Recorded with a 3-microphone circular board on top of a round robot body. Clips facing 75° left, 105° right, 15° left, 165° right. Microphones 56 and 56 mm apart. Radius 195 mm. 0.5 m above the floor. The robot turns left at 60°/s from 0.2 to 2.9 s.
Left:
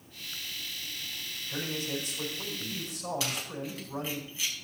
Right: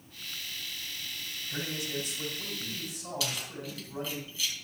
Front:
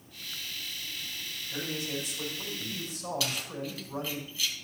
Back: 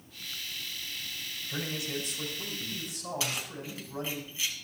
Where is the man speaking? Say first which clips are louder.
Left 2 dB, even; 140° left, 6.5 m; by 4.2 s 55° left, 6.5 m.